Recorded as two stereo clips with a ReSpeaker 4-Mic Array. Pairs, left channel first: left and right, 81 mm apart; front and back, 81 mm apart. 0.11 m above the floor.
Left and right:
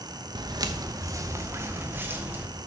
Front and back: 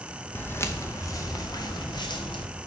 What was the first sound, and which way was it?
Footsteps, 65° right.